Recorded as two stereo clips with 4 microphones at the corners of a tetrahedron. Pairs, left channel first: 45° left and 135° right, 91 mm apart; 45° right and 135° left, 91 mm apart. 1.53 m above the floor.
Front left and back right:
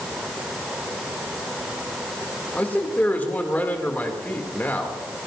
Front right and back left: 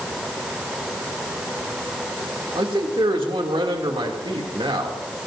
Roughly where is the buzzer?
No buzzer in this recording.